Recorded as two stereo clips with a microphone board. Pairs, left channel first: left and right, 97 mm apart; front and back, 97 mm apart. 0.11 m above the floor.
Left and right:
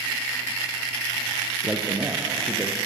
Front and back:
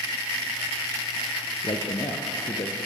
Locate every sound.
1.6 s a man speaking: 5° right, 2.5 m